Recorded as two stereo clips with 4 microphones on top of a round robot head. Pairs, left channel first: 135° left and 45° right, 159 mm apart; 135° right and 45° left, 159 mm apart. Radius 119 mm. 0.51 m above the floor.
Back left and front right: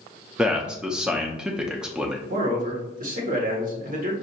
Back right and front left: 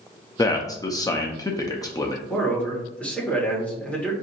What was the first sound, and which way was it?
A man speaking, 120° right.